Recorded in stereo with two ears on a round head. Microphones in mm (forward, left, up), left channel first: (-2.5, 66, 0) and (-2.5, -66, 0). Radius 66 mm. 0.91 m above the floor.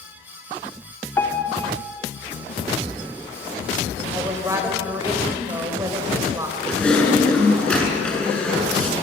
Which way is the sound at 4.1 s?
20° right (ahead or behind).